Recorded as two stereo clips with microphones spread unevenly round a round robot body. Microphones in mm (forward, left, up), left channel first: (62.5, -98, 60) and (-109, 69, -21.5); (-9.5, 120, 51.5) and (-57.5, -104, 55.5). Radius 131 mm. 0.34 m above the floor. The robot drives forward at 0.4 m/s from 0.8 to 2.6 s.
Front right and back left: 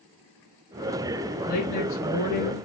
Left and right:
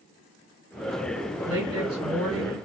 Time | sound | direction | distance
1.4 | a woman speaking | 30° right | 2 m